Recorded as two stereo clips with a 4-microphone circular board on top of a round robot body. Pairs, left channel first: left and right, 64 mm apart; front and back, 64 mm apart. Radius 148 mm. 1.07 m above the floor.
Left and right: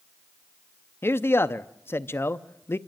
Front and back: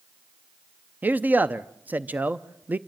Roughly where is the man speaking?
Behind left.